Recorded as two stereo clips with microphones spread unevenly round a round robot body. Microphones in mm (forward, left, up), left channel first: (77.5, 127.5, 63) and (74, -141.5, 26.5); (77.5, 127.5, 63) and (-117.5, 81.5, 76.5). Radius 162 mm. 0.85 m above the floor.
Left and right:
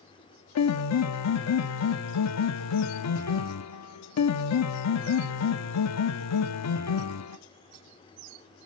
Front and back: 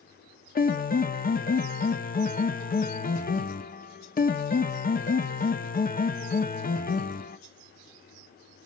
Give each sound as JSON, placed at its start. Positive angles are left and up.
{"t": 0.6, "sound": "a piano", "azimuth_deg": 60, "distance_m": 1.2}